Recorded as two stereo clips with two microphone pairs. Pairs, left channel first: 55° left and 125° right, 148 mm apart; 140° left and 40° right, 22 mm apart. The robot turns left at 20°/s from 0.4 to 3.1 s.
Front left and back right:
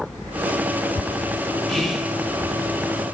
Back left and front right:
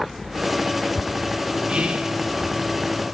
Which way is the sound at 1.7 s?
30° right.